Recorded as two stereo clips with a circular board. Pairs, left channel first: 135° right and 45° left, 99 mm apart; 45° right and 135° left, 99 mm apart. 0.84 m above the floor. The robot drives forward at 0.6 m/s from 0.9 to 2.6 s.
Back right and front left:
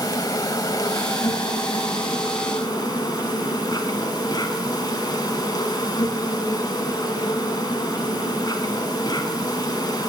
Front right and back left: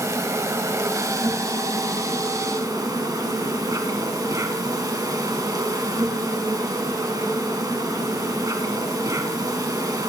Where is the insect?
175° right, 1.1 m.